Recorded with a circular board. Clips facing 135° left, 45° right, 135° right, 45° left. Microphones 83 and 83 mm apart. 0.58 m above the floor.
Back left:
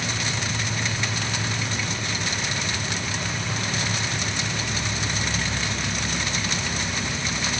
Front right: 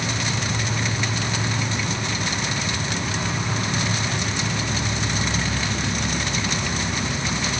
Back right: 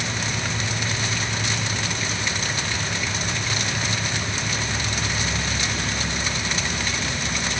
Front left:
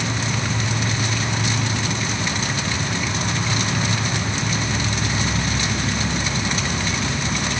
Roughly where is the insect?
Ahead.